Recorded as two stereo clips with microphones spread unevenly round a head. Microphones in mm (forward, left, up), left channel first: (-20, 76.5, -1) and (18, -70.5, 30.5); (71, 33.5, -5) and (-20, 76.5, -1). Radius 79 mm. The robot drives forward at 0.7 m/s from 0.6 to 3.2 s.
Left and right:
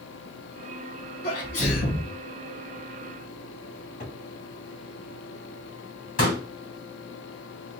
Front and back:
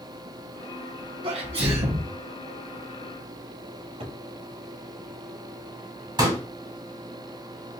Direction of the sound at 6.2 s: 135° left.